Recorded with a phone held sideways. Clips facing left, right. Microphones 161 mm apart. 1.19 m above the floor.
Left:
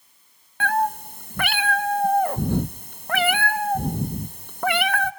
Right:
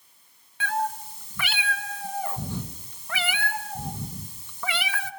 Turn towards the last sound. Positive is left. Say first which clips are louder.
# left 5 dB
turn(degrees=55)  # may be behind; listen again after turning